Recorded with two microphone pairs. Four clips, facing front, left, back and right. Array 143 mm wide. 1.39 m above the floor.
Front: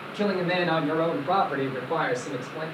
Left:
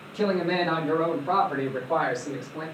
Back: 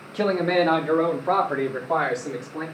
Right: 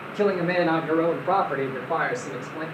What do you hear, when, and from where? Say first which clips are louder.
0.1 s a man speaking: right 2 dB, back 4 dB; 170° right, 2 m; by 2.6 s 175° left, 3.5 m